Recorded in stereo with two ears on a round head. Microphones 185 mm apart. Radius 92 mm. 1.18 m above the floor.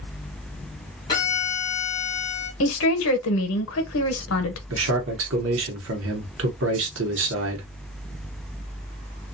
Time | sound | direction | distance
1.1 | a violin | 20° left (ahead or behind) | 1.0 m
2.6 | a woman speaking | 70° left (ahead or behind) | 0.8 m
4.7 | a man speaking | 65° right (ahead or behind) | 0.9 m